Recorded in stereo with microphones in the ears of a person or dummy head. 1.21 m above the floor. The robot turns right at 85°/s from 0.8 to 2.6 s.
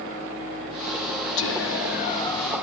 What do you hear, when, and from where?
1.4 s whispering: 80° left, 1.2 m; by 2.6 s 175° right, 1.2 m